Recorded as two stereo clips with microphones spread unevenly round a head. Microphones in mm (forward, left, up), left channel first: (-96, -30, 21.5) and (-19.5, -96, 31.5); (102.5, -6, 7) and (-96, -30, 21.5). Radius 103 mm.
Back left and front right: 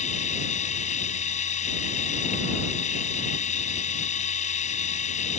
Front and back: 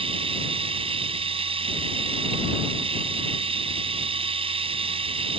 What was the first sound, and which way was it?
A machine running, 120° left.